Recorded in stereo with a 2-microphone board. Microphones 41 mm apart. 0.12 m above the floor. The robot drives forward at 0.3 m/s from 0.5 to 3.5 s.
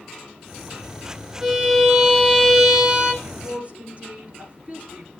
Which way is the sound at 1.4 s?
10° right (ahead or behind).